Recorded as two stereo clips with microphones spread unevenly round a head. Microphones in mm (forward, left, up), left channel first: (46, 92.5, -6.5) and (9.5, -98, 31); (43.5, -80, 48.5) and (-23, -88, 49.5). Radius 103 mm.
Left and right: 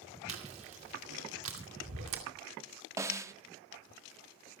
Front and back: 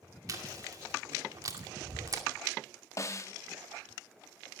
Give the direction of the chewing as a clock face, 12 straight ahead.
5 o'clock.